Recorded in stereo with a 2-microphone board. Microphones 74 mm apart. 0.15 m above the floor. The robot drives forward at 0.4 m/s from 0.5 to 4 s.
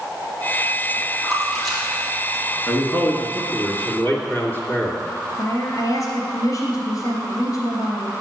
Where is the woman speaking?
50° left (ahead or behind), 3 m.